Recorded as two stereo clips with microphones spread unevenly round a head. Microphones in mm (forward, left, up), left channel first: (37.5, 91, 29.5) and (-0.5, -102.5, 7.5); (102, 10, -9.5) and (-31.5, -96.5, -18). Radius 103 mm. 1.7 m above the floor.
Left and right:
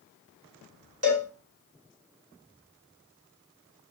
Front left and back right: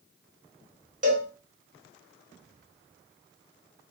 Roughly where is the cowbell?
Right.